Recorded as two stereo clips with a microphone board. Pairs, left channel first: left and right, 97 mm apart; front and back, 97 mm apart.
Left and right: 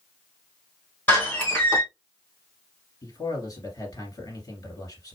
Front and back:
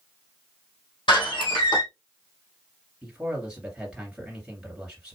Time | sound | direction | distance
1.1 | a door slam | 15° left | 2.5 m
3.0 | a man speaking | 100° left | 2 m